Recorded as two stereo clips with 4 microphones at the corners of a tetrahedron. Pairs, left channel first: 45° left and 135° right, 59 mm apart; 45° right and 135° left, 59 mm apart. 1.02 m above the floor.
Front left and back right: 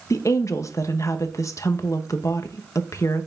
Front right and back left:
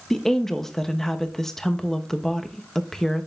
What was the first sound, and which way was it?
A woman speaking, 40° left.